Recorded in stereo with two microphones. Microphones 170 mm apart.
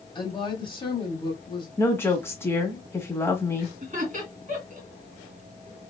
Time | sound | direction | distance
0.1 | a woman speaking | 30° left (ahead or behind) | 1.1 m
1.8 | a woman speaking | 15° left (ahead or behind) | 1.3 m
3.8 | laughter | 50° right (ahead or behind) | 2.5 m